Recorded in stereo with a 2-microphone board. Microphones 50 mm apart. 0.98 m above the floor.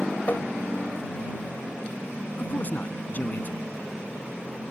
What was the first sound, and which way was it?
Tapping, 40° left (ahead or behind).